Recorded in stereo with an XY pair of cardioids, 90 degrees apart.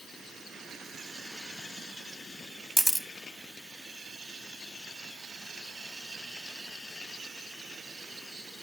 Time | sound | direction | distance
2.8 | a camera shutter | straight ahead | 1.9 m